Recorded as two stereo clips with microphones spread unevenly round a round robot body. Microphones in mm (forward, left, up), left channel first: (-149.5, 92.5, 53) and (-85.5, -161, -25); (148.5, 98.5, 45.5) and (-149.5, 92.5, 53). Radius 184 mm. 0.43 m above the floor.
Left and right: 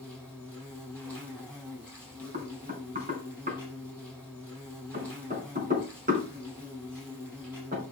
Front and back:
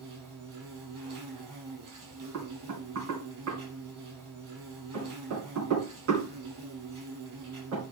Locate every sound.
0.0 s an insect: 155° right, 6.5 m
2.3 s knocking: 125° right, 4.5 m